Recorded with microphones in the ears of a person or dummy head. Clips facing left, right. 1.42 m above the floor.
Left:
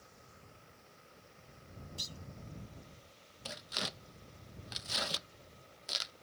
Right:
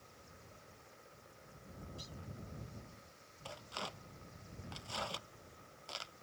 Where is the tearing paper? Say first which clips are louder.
Left 3 dB; 25° left (ahead or behind).